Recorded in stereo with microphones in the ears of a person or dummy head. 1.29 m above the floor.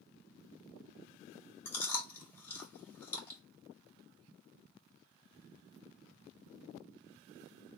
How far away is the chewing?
About 1.8 m.